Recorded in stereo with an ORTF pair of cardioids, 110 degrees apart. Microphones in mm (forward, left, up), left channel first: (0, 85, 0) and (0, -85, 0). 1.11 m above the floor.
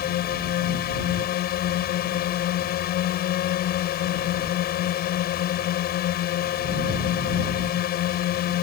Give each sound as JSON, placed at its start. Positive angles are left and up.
{"t": 0.0, "sound": "a drone", "azimuth_deg": 70}